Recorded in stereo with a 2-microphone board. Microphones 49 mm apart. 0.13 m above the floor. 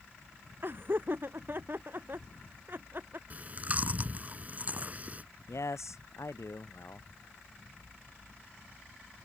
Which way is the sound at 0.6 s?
50° right (ahead or behind).